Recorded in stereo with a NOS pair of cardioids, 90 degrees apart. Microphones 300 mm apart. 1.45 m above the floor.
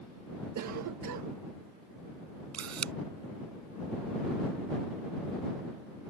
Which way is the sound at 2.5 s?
60° right.